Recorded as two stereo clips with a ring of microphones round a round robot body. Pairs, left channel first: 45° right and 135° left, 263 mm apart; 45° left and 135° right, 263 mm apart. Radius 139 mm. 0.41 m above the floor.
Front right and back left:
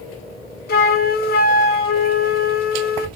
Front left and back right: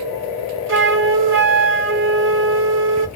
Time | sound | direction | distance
0.7 | a flute | 95° right | 0.7 m